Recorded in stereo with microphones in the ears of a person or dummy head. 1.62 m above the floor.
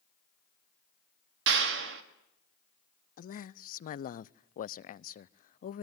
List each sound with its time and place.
1.5 s a clap: 65° right (ahead or behind), 1.9 m
3.2 s a man speaking: 50° left (ahead or behind), 0.5 m